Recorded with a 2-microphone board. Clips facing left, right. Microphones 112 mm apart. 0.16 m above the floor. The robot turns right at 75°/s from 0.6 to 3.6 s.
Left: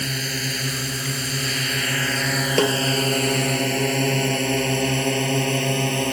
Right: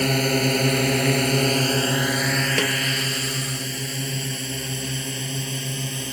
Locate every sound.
0.0 s a drone: 55° right (ahead or behind); by 6.1 s 65° left (ahead or behind)
2.6 s a snare drum: 30° left (ahead or behind); by 2.8 s 45° left (ahead or behind)